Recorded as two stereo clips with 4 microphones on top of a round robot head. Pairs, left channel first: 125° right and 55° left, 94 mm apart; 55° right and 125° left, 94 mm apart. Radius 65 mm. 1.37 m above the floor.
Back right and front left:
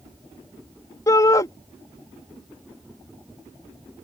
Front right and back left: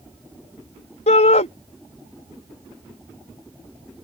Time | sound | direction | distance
1.1 | a shout | 65° right | ?